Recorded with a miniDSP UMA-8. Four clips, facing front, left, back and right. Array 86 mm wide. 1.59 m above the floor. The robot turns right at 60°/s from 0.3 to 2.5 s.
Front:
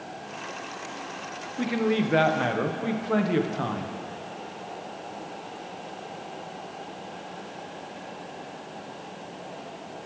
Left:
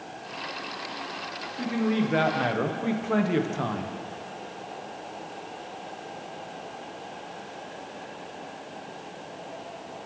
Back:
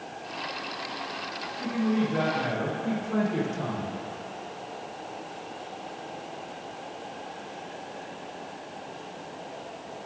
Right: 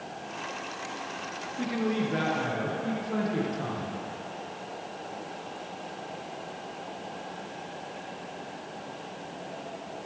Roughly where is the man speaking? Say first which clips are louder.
Left 3 dB, front 2 dB; ahead.